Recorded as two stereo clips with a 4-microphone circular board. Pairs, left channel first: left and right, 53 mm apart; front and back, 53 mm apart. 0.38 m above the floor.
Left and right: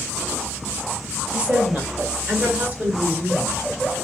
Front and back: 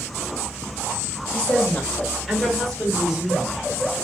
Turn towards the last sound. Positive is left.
turn(degrees=-110)